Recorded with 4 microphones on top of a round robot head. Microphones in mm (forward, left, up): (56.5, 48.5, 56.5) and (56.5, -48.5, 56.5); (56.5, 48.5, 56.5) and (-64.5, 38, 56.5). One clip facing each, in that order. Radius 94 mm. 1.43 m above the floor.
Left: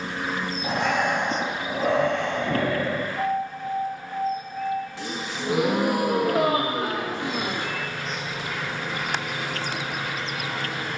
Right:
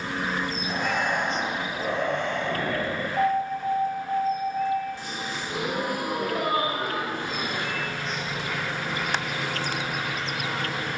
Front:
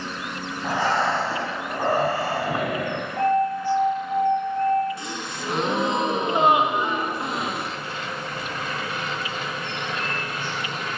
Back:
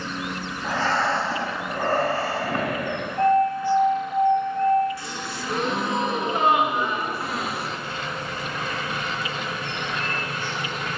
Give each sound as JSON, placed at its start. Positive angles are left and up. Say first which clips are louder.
{"t": 0.6, "sound": "breathing", "louder": "left 5 dB, front 1 dB", "azimuth_deg": 80, "distance_m": 0.8}
{"t": 3.2, "sound": "an alarm", "louder": "right 2 dB, back 2 dB", "azimuth_deg": -55, "distance_m": 2.0}
{"t": 5.0, "sound": "a gasp", "louder": "left 2 dB, even", "azimuth_deg": 75, "distance_m": 0.6}